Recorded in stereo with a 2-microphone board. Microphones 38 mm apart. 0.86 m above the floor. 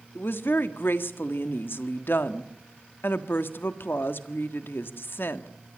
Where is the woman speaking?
70° left (ahead or behind), 1.6 m.